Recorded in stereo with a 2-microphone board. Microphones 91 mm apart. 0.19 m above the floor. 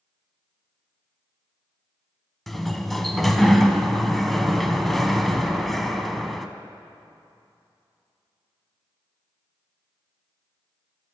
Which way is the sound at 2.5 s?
Centre (ahead or behind).